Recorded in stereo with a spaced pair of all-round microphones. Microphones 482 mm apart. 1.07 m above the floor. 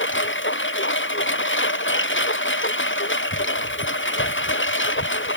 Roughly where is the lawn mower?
Left.